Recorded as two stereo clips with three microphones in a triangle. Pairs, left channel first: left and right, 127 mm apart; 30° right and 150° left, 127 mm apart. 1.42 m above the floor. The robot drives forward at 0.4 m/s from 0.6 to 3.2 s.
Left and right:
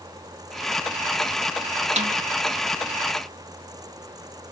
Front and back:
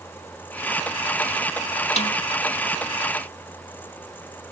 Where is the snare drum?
60° right; by 2.1 s 65° right.